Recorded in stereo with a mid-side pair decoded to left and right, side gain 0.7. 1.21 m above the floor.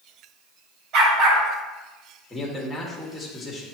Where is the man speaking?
10° left, 2.0 m.